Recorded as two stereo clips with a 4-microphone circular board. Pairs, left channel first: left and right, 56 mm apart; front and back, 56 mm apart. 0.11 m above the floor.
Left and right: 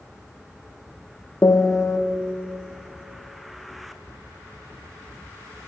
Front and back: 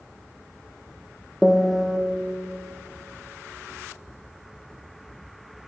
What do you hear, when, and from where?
1.4 s a piano: 95° left, 0.7 m